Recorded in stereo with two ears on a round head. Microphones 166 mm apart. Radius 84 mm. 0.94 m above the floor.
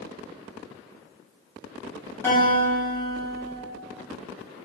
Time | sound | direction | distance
2.2 | a guitar | 10° left (ahead or behind) | 1.4 m